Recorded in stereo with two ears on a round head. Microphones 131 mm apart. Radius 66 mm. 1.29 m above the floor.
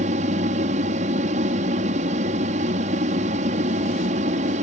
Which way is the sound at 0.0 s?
50° right (ahead or behind).